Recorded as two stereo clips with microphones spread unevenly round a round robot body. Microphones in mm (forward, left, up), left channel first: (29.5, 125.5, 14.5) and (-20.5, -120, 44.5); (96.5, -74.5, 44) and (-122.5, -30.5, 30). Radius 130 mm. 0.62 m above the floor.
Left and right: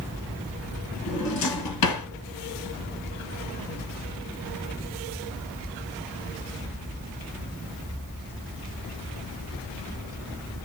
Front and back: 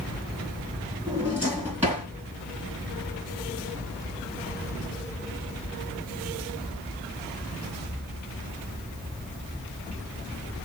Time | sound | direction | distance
1.1 | a drawer | 85° left | 1.7 m